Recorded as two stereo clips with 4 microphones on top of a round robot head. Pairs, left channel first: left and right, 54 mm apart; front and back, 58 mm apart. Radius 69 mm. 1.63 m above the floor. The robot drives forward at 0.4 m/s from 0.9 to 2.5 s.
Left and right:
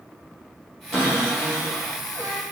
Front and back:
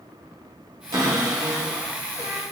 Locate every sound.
0.9 s a cupboard door: 170° left, 1.6 m